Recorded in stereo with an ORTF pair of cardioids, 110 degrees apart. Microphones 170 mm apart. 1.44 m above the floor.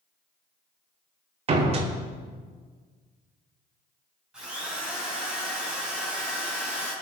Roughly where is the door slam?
Ahead right.